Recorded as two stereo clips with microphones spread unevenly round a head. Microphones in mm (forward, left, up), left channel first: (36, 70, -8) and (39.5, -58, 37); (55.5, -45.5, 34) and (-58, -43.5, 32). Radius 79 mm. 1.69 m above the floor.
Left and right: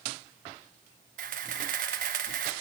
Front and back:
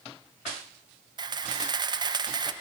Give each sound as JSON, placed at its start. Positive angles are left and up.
{"t": 1.2, "sound": "a camera shutter", "azimuth_deg": -130, "distance_m": 1.2}